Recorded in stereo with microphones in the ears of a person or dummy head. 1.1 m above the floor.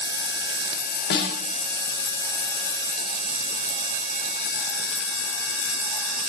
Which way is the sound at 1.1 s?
60° left (ahead or behind).